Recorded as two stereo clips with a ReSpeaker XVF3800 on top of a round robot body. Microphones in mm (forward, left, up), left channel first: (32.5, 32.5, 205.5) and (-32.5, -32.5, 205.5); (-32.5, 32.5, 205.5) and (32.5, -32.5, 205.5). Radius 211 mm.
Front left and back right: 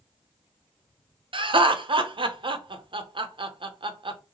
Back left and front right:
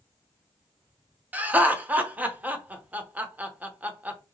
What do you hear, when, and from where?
1.3 s laughter: 115° right, 0.8 m